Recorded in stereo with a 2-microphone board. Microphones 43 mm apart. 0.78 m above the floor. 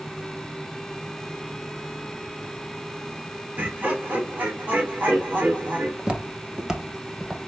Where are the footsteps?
25° right (ahead or behind), 0.8 m; by 7.4 s 10° right (ahead or behind), 0.9 m.